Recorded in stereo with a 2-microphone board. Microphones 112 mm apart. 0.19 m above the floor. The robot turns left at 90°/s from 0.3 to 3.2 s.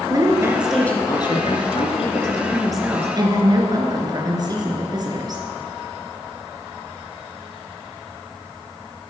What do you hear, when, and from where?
0.1 s a woman speaking: 140° right, 3 m; by 5.4 s 40° right, 3 m